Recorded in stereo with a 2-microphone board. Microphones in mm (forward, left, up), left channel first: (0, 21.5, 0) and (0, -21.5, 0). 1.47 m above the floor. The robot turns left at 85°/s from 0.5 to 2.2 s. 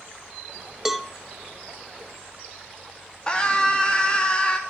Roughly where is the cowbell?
Centre.